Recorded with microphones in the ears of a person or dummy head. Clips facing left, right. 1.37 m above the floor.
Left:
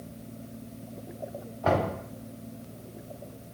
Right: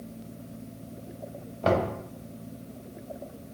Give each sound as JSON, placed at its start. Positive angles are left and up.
{"t": 1.6, "sound": "knocking", "side_deg": -45, "distance_m": 2.5}